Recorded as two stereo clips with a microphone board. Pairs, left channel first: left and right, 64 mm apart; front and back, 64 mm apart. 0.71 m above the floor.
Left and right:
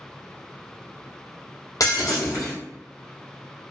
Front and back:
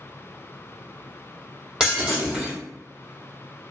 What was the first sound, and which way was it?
Breaking glass, 100° left.